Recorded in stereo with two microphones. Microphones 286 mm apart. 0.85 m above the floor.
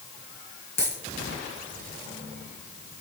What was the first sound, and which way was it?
A dropped coin, 75° left (ahead or behind).